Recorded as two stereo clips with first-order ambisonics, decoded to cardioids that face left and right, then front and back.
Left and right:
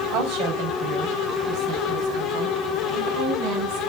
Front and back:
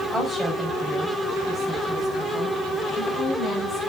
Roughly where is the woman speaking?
Right.